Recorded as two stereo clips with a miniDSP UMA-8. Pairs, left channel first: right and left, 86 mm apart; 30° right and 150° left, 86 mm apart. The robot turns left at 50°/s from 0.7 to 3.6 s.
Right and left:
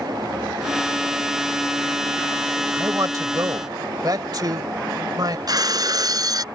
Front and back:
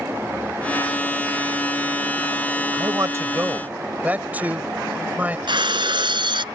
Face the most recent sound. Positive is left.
turn(degrees=130)